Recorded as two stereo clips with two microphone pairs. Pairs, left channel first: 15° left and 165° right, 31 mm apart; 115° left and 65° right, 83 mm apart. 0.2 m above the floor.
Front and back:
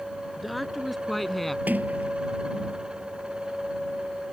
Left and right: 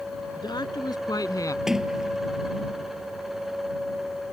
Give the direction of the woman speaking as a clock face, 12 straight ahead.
8 o'clock.